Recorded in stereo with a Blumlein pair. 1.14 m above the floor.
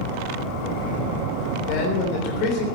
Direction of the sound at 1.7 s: 45° left.